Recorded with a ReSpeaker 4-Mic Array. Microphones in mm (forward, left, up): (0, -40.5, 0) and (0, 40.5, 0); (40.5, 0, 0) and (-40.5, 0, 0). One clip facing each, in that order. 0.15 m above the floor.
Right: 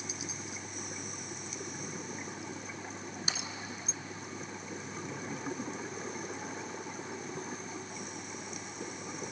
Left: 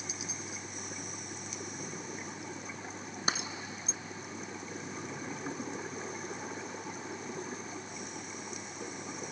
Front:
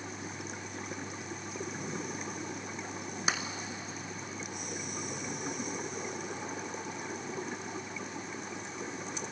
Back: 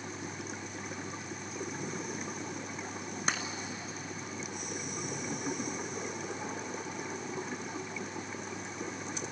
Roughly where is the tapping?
Left.